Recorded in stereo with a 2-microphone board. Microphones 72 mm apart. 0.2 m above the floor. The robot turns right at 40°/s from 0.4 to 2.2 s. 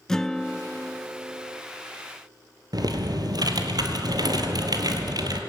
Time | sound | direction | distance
0.1 | a guitar | 175° left | 0.7 m
2.7 | typing on a keyboard | 65° right (ahead or behind) | 2 m